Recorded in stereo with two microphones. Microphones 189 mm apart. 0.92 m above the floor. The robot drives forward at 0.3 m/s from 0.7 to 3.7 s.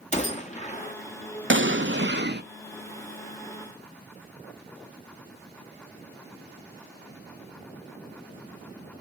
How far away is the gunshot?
About 1.6 m.